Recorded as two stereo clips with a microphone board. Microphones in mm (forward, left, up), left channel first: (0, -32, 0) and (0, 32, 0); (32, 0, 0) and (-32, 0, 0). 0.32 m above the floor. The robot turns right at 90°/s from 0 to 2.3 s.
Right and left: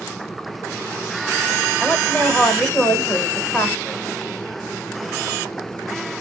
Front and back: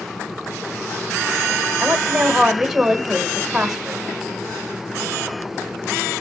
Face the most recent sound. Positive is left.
turn(degrees=-105)